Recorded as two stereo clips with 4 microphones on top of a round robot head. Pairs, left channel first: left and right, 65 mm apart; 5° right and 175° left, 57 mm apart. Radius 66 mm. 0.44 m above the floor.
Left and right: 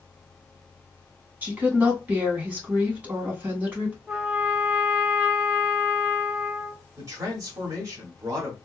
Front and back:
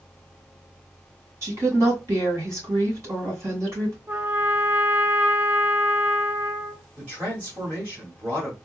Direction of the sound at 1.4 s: 145° right.